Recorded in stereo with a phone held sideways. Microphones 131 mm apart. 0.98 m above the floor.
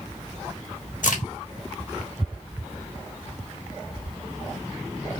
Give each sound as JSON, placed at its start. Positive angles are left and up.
{"t": 1.0, "sound": "a crack", "side_deg": 75, "distance_m": 1.6}